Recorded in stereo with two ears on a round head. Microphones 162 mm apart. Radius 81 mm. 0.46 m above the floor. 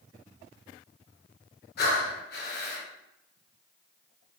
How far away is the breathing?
About 0.6 m.